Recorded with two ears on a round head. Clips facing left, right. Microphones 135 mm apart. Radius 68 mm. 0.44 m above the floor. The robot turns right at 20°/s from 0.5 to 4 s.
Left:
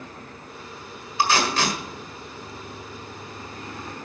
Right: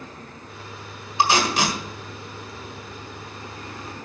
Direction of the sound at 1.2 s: 20° right (ahead or behind).